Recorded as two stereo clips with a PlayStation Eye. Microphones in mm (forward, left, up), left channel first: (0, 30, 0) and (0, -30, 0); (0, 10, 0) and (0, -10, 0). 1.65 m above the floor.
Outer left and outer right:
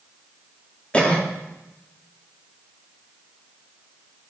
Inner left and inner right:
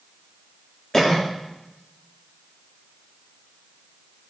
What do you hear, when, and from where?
0.9 s a cough: 20° left (ahead or behind), 0.8 m